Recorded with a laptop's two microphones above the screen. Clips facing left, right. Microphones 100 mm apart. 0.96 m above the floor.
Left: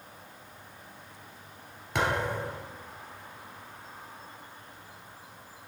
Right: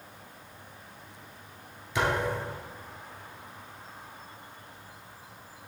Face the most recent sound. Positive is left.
turn(degrees=65)  # may be behind; listen again after turning